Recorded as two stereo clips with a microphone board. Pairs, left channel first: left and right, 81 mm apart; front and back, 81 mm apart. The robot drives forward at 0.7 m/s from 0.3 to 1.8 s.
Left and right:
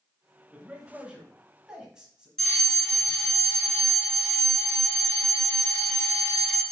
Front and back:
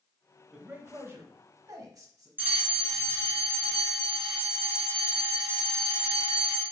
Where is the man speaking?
125° right, 0.9 m; by 2.3 s 165° right, 1.4 m.